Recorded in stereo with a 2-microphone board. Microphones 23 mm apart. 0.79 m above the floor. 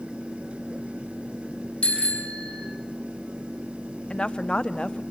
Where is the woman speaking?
40° left (ahead or behind), 1.2 m.